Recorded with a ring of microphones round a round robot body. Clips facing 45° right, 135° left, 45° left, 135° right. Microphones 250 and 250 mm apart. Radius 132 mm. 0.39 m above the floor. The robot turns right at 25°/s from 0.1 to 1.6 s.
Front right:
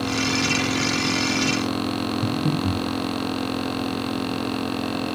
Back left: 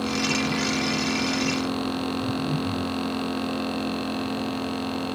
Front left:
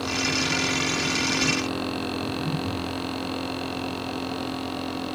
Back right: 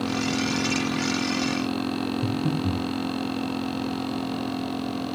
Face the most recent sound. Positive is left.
turn(degrees=-90)